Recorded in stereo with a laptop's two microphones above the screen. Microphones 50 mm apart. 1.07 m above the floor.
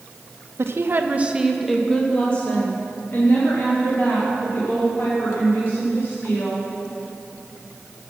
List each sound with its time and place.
0.6 s a woman speaking: 65° right (ahead or behind), 0.7 m; by 6.7 s 50° left (ahead or behind), 4 m